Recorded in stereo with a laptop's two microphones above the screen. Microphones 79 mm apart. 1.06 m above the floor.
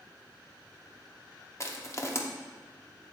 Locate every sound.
1.6 s crushing: 40° left (ahead or behind), 0.8 m